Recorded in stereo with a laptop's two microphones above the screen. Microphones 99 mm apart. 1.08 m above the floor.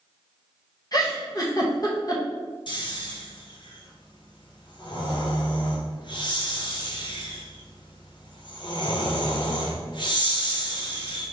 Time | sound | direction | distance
0.9 | a giggle | 40° left (ahead or behind) | 0.9 m
2.7 | snoring | 50° left (ahead or behind) | 0.9 m